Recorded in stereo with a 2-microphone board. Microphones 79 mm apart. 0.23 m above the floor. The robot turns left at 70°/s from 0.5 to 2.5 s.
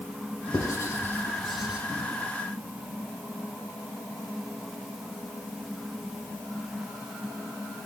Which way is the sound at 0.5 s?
45° left (ahead or behind).